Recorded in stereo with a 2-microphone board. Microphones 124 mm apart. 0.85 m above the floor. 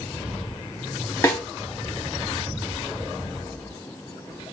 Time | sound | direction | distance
1.2 | a snare drum | 25° left (ahead or behind) | 2.5 m